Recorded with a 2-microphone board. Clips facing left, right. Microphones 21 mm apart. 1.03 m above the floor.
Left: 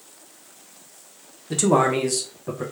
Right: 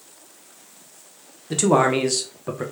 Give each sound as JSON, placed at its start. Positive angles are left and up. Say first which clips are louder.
{"t": 1.5, "sound": "a man speaking", "louder": "right 1 dB", "side_deg": -15, "distance_m": 0.8}